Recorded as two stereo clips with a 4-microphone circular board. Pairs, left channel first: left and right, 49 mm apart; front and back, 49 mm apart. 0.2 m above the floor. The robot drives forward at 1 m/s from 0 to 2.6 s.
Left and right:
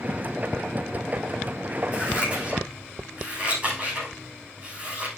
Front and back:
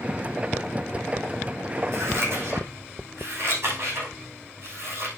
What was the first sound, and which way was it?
Scissors, 155° right.